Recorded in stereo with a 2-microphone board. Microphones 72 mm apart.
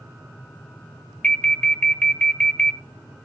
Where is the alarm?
15° left (ahead or behind), 0.9 m.